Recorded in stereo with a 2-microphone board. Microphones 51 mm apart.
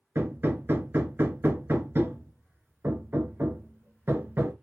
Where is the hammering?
50° right (ahead or behind), 0.7 m.